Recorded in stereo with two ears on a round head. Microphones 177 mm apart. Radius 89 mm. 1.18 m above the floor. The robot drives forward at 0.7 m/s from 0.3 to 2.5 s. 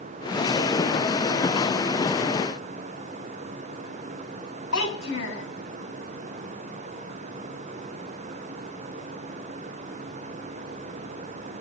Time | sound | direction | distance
4.7 | a child speaking | 70° left (ahead or behind) | 7.5 m